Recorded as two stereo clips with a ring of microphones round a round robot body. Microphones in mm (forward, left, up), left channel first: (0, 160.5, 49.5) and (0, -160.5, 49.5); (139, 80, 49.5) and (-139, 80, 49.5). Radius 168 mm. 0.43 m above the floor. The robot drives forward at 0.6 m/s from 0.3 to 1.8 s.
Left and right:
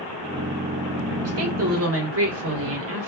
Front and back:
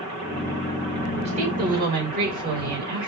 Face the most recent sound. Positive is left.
turn(degrees=-125)